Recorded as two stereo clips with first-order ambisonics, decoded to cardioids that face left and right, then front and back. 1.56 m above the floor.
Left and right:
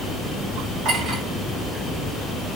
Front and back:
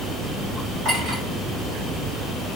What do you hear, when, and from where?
0.8 s a clink: 130° right, 2.5 m